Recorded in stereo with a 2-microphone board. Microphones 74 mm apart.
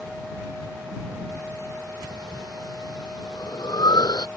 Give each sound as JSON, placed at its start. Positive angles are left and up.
{"t": 2.0, "sound": "breathing", "side_deg": 70}